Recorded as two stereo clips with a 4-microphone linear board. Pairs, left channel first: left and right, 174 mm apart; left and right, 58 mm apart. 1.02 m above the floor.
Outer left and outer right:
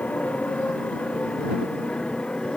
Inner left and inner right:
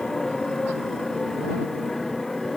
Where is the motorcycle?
5° left (ahead or behind).